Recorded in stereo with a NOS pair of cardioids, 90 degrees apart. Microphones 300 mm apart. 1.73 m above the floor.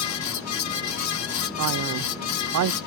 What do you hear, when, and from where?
0.0 s a fan: 65° left
1.6 s a man speaking: 65° right